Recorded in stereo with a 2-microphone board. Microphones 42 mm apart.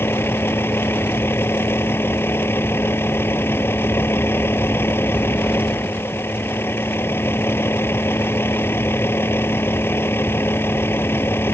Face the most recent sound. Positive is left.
turn(degrees=65)  # may be behind; listen again after turning